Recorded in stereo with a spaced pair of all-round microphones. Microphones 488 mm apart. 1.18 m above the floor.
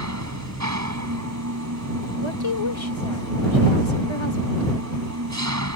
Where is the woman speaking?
65° left (ahead or behind).